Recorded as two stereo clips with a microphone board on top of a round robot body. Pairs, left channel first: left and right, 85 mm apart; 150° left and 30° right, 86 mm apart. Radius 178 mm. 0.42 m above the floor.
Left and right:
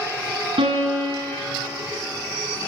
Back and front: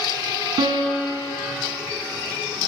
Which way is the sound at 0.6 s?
70° right.